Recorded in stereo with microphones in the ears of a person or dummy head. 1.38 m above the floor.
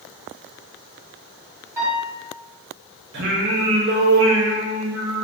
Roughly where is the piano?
Centre.